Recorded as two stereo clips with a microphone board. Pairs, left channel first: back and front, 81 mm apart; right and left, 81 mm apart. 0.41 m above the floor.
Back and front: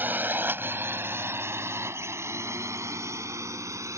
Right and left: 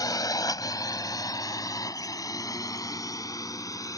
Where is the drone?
60° right; by 4.0 s 50° right.